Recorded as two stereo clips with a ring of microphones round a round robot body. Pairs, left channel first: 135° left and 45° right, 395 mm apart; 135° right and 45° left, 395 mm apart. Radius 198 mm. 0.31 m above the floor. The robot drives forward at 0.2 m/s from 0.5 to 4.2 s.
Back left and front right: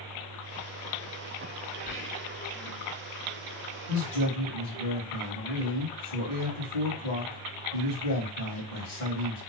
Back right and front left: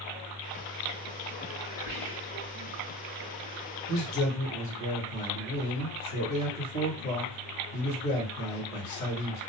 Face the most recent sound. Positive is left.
turn(degrees=165)